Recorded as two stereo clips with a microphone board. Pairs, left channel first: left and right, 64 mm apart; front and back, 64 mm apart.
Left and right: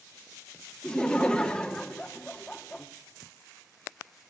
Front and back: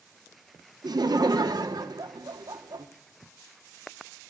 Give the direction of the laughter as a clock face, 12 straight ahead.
6 o'clock.